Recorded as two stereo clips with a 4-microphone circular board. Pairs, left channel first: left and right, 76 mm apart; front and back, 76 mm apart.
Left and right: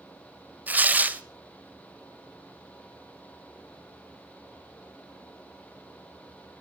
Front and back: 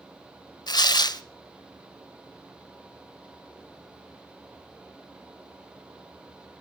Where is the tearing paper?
20° right, 0.6 m.